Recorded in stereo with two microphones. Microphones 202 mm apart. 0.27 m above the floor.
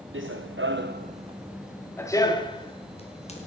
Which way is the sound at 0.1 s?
80° right.